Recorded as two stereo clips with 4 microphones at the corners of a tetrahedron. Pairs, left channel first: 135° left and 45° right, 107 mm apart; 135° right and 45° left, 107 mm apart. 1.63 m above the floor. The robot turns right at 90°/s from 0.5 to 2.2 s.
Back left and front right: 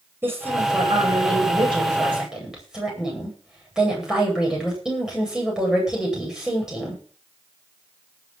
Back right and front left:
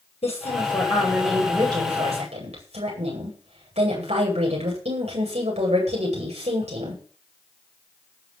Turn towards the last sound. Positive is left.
turn(degrees=40)